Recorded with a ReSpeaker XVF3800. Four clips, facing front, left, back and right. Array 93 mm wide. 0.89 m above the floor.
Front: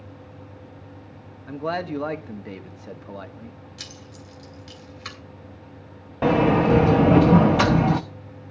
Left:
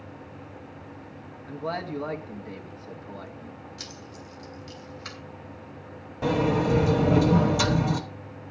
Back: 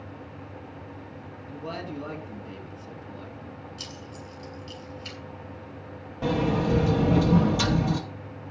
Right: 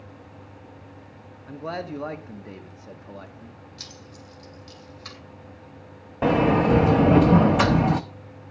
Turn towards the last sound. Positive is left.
turn(degrees=-40)